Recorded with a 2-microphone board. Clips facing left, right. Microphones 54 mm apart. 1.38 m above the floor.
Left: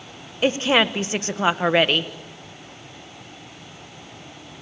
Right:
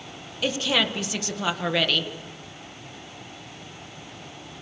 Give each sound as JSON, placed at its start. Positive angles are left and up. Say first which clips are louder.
{"t": 0.4, "sound": "a woman speaking", "louder": "left 6 dB", "side_deg": 35, "distance_m": 1.2}